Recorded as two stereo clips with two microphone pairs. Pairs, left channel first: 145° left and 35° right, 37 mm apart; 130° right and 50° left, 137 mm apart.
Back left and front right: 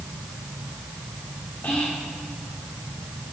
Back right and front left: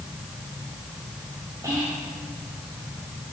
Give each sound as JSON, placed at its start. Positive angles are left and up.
{"t": 1.6, "sound": "whispering", "azimuth_deg": 110, "distance_m": 1.3}